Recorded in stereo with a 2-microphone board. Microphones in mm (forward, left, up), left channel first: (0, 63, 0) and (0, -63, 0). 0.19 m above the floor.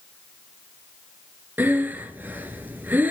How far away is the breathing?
About 1.8 m.